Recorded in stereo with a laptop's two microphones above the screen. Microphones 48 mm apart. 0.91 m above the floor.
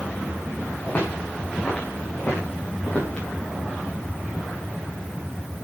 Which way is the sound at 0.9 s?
30° left (ahead or behind).